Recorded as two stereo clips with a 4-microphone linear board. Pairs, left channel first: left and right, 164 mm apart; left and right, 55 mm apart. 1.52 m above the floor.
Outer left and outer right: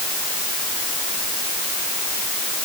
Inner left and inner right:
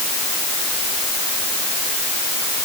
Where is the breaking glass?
I don't hear breaking glass.